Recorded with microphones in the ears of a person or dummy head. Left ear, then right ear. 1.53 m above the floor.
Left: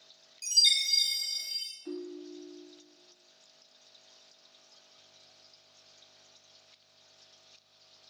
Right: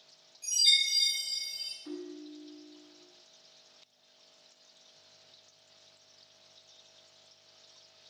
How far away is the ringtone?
About 0.7 m.